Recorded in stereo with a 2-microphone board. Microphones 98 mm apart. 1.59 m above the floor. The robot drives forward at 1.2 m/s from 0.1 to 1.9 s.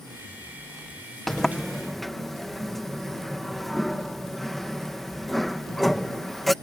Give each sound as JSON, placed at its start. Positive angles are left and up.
{"t": 1.3, "sound": "a sliding door", "side_deg": 5}